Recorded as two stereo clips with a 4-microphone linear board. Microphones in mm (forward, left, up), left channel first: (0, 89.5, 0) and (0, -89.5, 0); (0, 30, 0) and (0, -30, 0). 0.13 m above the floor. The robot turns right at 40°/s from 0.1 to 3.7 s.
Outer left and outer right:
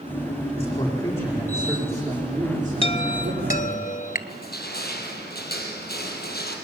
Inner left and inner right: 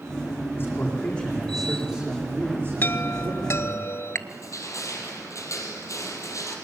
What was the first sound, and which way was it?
A man speaking, 140° left.